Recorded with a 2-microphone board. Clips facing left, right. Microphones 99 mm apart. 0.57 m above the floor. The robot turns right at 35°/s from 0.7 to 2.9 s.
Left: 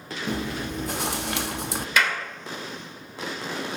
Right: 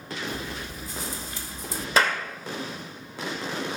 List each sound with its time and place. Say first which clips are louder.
0.3 s chewing: left 5 dB; 70° left, 0.5 m; by 1.9 s 110° left, 0.5 m
2.0 s a clap: right 2 dB; 35° right (ahead or behind), 1.9 m; by 2.2 s 40° right (ahead or behind), 1.9 m